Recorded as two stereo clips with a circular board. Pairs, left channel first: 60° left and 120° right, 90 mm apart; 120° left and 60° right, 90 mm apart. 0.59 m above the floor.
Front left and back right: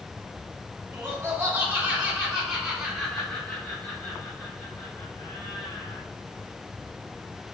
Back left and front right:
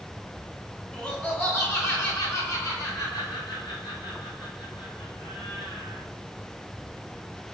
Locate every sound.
0.9 s laughter: 170° right, 1.7 m; by 6.0 s 115° left, 3 m